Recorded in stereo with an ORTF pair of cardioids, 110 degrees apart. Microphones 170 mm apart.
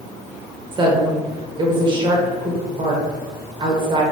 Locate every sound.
0.7 s a woman speaking: 35° right, 1.0 m